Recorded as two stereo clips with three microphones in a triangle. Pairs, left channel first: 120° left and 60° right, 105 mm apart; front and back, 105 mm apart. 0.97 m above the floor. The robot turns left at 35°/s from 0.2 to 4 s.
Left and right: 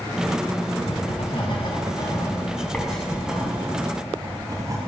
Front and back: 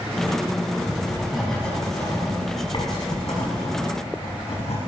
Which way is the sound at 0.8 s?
110° left.